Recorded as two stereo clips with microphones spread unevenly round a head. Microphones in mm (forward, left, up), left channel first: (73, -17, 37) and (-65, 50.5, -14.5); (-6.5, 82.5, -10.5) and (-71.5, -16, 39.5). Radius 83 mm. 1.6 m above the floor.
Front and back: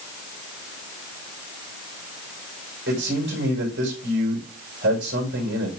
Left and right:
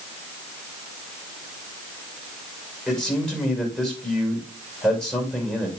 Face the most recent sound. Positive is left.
turn(degrees=145)